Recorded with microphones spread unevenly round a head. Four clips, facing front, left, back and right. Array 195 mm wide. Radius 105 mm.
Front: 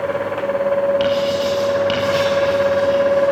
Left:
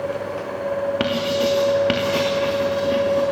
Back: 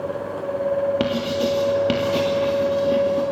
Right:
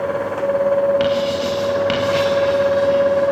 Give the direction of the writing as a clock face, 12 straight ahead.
7 o'clock.